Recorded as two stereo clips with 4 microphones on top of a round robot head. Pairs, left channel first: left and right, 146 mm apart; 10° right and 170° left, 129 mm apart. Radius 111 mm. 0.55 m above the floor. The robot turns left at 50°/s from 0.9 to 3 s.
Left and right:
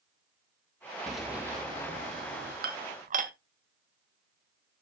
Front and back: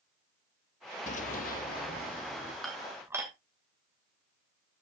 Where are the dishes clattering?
100° right, 2 m; by 3.3 s 120° right, 2 m.